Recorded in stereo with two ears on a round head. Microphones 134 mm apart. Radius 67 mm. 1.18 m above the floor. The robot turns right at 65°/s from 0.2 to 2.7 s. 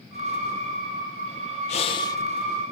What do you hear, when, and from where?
1.7 s breathing: 125° left, 0.6 m; by 2.2 s 160° left, 0.6 m